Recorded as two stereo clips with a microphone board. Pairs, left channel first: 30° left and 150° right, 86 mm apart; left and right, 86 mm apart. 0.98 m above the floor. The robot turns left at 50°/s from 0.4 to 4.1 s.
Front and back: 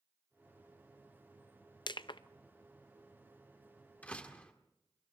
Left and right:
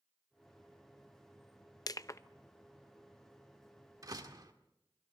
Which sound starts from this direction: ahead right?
A door slam, at 4.0 s.